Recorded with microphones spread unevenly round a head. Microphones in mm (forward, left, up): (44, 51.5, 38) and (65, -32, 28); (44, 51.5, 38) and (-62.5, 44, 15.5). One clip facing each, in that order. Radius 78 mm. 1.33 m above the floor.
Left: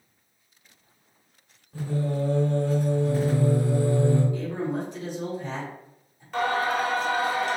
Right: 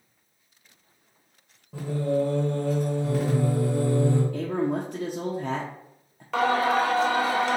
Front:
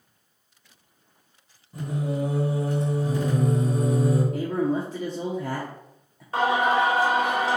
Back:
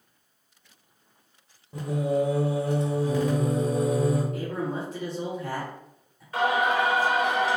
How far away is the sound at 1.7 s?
About 0.9 m.